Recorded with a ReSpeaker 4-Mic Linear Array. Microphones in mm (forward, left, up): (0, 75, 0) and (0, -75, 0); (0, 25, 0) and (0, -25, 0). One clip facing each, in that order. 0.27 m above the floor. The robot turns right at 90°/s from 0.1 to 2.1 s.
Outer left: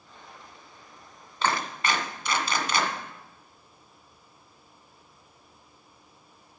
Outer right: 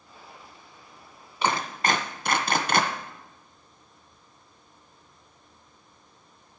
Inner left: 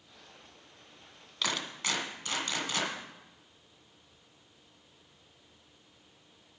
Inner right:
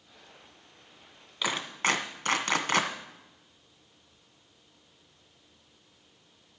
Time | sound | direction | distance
1.4 | a clap | 15° right (ahead or behind) | 1.9 m